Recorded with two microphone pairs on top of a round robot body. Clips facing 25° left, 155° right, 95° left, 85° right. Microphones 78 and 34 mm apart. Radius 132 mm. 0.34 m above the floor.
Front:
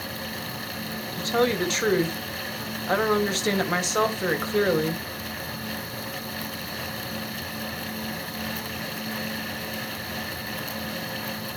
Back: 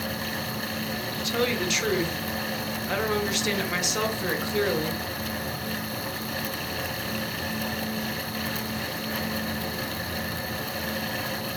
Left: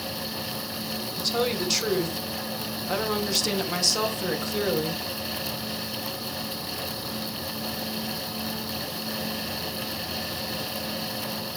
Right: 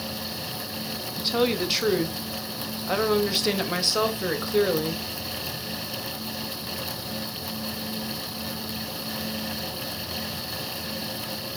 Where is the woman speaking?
20° right, 2.0 m.